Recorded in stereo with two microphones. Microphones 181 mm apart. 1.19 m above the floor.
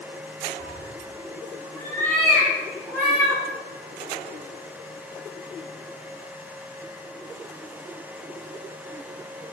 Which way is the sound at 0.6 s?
25° left (ahead or behind).